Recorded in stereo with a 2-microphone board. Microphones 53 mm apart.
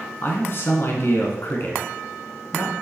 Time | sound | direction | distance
0.2 | a man speaking | 50° left (ahead or behind) | 2.5 m